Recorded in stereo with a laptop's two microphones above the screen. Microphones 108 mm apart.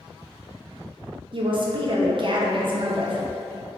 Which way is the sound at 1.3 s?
50° right (ahead or behind).